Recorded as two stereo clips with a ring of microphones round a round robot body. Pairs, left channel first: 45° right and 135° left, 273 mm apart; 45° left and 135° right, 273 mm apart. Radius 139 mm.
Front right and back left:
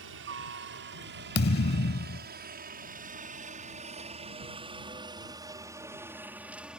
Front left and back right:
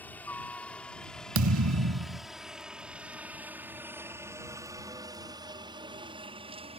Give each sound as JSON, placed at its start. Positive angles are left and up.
{"t": 0.0, "sound": "a helicopter", "azimuth_deg": 125}
{"t": 1.4, "sound": "a thud", "azimuth_deg": -100}